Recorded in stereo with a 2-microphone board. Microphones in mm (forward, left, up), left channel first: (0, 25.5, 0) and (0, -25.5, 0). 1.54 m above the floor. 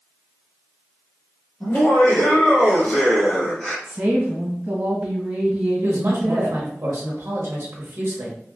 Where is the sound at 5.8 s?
50° right (ahead or behind), 1.2 m.